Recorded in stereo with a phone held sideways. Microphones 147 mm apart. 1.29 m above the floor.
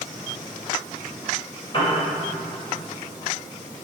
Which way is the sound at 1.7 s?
35° left (ahead or behind).